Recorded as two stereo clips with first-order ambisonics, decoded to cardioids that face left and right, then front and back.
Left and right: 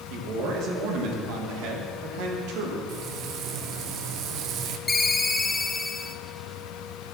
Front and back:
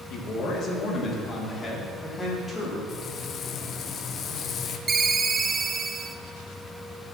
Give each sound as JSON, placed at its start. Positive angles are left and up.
{"t": 0.1, "sound": "a man speaking", "azimuth_deg": -50, "distance_m": 2.0}
{"t": 2.9, "sound": "frying", "azimuth_deg": -55, "distance_m": 0.6}
{"t": 4.9, "sound": "a ringtone", "azimuth_deg": 150, "distance_m": 0.6}